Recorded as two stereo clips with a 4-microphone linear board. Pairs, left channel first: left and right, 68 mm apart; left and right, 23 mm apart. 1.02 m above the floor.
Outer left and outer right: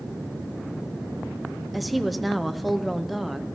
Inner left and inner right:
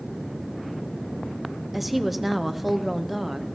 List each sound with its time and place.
1.7 s a woman speaking: centre (ahead or behind), 0.6 m